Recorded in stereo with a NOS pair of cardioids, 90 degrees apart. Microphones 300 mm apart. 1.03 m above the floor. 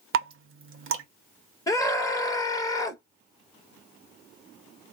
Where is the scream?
10° left, 1.1 m.